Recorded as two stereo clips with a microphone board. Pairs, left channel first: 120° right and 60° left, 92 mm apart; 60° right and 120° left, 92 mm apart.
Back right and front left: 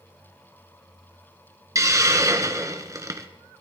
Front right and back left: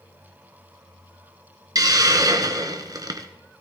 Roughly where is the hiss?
Left.